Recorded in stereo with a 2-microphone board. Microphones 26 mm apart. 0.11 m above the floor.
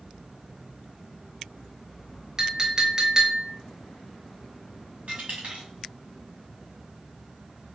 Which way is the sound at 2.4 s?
30° right (ahead or behind).